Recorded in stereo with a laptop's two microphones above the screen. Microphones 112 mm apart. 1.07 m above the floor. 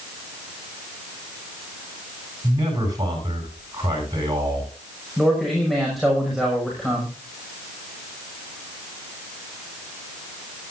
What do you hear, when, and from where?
2.4 s a man speaking: 35° right (ahead or behind), 10 m
5.2 s a man speaking: centre (ahead or behind), 5.5 m